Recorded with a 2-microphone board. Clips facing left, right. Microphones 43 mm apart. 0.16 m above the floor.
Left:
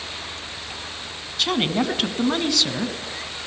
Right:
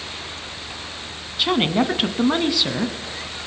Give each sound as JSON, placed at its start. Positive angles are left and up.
{"t": 1.4, "sound": "a woman speaking", "side_deg": -15, "distance_m": 1.1}